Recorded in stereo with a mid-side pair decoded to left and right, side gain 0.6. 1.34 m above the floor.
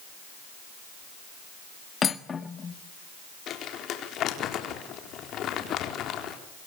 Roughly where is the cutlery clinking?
Ahead left.